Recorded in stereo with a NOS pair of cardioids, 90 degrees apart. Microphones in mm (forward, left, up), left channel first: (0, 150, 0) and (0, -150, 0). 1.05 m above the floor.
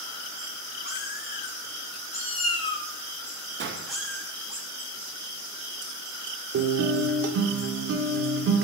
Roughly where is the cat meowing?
Ahead left.